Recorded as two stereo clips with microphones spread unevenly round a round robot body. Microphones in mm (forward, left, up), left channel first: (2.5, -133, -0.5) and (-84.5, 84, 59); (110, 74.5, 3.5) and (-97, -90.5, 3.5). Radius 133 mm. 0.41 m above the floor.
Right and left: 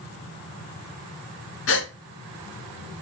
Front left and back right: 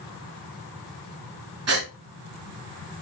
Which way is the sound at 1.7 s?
105° right.